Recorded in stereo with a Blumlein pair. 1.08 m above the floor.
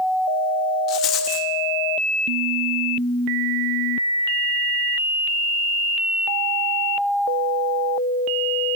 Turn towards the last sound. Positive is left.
turn(degrees=35)